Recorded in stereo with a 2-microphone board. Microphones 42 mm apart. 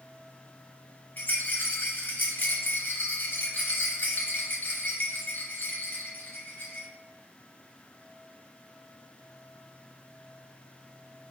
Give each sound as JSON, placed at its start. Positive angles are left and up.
{"t": 1.2, "sound": "a rattle", "side_deg": 45, "distance_m": 0.9}